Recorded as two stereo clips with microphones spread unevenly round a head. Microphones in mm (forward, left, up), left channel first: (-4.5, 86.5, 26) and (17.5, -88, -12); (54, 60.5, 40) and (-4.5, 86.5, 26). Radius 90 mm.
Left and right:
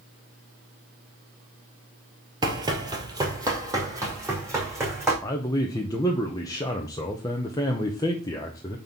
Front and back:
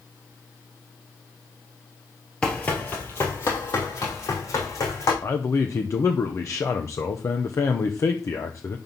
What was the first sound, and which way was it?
Running footsteps, 15° right.